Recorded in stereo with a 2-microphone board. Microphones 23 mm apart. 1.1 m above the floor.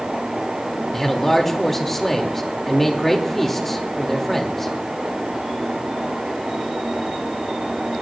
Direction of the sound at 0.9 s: 10° left (ahead or behind).